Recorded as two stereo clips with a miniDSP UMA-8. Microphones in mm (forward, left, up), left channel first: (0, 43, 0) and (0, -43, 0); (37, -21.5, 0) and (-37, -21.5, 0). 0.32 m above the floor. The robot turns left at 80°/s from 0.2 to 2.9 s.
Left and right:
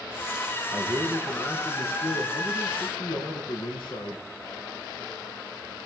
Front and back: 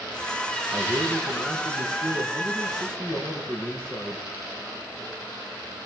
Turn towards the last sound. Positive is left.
turn(degrees=80)